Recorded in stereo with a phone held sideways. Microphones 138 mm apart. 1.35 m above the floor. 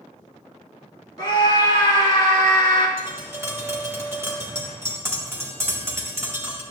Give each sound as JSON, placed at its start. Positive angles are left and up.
{"t": 1.2, "sound": "a scream", "side_deg": 30, "distance_m": 2.5}
{"t": 3.0, "sound": "tapping", "side_deg": -20, "distance_m": 1.9}